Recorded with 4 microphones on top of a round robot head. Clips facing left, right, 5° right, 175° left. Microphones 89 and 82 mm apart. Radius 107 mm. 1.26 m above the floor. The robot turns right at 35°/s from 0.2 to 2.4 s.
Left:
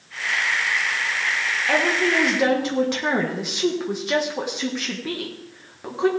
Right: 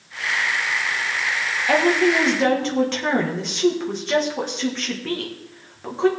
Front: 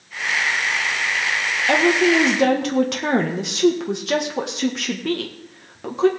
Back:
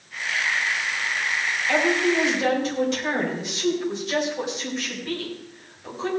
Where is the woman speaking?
15° right, 1.6 m; by 6.1 s 10° left, 1.6 m.